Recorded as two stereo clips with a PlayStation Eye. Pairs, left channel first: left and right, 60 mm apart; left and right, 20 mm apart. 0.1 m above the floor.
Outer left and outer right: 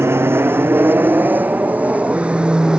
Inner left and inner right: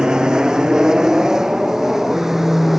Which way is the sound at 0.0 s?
40° right (ahead or behind).